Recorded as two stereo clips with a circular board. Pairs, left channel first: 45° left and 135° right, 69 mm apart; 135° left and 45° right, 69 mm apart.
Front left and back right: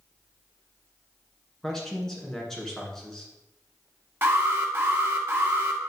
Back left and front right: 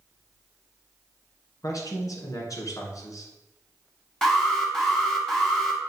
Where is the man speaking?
125° left, 1.9 m.